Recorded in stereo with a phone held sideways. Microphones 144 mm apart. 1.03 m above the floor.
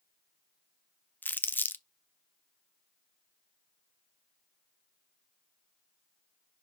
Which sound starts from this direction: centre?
Crumpling, at 1.2 s.